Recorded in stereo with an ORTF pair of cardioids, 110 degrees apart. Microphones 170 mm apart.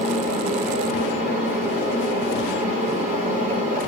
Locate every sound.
0.0 s a fan: 45° right, 6 m